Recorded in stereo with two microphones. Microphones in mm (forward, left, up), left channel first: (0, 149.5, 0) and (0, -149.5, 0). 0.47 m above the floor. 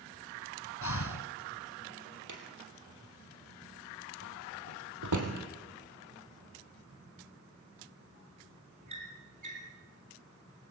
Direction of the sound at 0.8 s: 70° left (ahead or behind).